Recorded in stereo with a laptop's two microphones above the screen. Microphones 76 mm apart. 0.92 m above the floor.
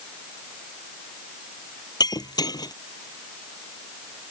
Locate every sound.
2.0 s breaking glass: 60° left (ahead or behind)